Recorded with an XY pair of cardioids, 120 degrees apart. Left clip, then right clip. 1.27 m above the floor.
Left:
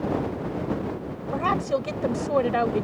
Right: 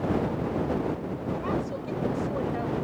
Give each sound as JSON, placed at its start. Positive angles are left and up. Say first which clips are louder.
{"t": 1.3, "sound": "a woman speaking", "louder": "left 9 dB", "azimuth_deg": 65}